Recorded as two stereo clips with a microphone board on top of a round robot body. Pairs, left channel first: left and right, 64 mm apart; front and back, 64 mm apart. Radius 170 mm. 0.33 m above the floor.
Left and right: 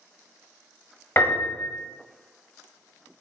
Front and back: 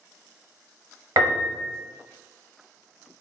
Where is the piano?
150° left, 0.6 m.